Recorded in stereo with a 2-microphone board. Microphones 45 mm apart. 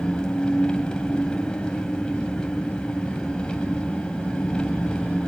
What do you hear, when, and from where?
0.0 s an engine running: 20° left (ahead or behind), 3.5 m